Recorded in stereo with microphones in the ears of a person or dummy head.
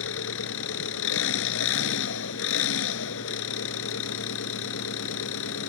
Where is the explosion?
No explosion in this recording.